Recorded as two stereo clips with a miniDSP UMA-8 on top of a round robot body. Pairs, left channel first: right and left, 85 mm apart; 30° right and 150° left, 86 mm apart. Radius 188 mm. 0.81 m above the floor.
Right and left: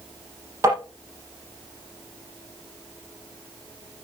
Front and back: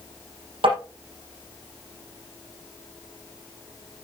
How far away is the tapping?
About 7 m.